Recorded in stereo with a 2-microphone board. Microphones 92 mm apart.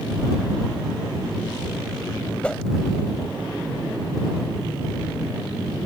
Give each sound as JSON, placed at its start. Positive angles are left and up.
{"t": 2.4, "sound": "a whoosh", "side_deg": 10}